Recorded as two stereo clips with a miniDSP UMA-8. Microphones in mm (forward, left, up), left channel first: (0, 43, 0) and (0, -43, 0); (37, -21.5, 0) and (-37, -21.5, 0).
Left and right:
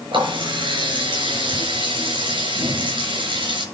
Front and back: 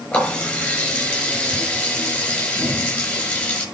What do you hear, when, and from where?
0.1 s a running tap: 75° right, 7 m